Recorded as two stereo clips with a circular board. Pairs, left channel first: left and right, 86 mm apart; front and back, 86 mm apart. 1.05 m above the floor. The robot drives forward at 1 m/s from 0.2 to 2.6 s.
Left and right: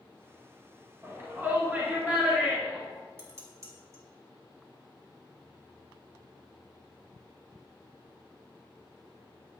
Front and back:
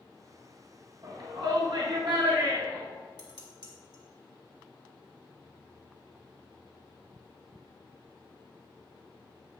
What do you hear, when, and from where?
1.0 s a shout: 150° right, 1.2 m; by 2.9 s 165° right, 2.5 m
3.2 s dishes clattering: 145° right, 1.9 m